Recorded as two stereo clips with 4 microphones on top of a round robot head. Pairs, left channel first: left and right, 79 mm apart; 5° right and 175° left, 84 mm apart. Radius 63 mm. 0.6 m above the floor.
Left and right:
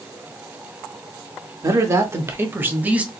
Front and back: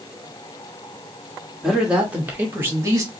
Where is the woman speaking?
100° right, 1.4 m; by 3.1 s 155° right, 1.3 m.